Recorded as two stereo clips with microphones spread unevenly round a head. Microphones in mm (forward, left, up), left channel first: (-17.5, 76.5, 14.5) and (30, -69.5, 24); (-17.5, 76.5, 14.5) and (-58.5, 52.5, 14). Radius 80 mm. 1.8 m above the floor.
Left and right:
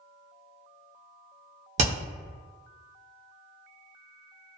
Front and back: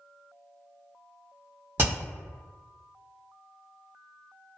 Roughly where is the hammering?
Right.